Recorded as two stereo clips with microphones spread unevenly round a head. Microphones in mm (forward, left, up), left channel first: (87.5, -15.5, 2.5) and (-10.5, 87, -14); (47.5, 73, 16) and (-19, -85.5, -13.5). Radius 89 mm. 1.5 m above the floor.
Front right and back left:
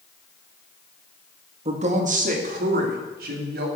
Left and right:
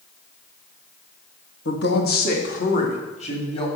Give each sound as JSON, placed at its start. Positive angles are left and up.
{"t": 1.6, "sound": "a woman speaking", "azimuth_deg": 90, "distance_m": 1.8}